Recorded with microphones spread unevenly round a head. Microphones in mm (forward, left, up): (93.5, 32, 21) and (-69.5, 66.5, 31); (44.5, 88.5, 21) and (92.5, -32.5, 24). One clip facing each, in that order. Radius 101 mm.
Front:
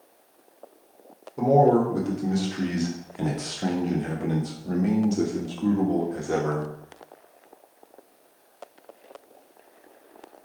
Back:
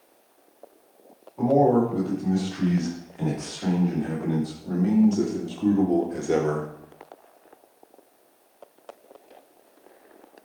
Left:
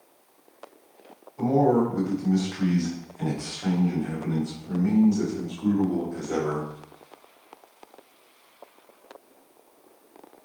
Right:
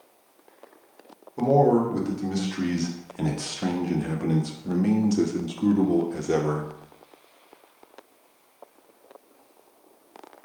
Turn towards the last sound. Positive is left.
turn(degrees=-130)